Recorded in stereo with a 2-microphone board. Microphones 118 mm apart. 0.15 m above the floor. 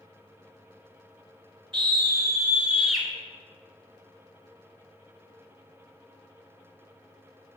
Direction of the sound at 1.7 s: 40° right (ahead or behind).